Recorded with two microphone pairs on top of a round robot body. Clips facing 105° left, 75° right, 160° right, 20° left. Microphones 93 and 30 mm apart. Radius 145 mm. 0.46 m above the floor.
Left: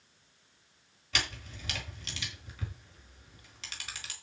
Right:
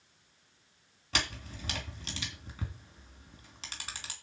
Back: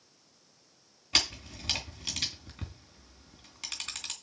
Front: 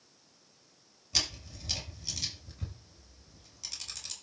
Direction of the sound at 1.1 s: 130° right.